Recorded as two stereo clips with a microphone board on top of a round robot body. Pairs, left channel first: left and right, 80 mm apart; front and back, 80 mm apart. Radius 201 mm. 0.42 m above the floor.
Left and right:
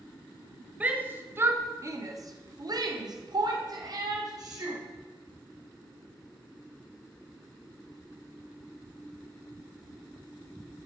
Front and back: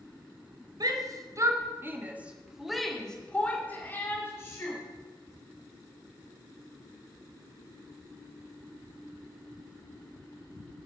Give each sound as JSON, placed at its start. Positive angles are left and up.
{"t": 0.8, "sound": "a shout", "azimuth_deg": -160, "distance_m": 2.0}